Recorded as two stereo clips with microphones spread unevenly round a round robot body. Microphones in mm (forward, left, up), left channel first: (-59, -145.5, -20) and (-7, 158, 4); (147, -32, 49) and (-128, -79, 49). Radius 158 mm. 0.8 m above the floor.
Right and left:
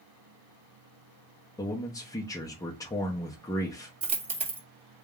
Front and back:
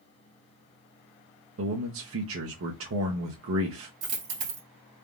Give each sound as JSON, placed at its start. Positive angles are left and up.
{"t": 1.6, "sound": "a man speaking", "azimuth_deg": -170, "distance_m": 0.8}
{"t": 4.0, "sound": "a dropped coin", "azimuth_deg": 145, "distance_m": 1.4}